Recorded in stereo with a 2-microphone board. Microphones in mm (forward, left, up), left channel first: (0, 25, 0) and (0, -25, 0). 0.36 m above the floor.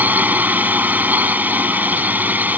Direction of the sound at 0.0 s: 35° right (ahead or behind).